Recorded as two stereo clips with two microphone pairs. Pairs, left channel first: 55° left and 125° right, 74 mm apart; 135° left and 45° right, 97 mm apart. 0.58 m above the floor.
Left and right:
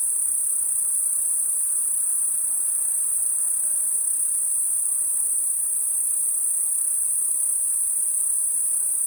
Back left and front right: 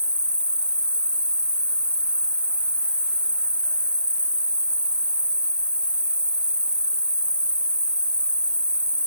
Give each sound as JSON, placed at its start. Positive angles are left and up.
{"t": 0.0, "sound": "an insect", "azimuth_deg": -120, "distance_m": 0.9}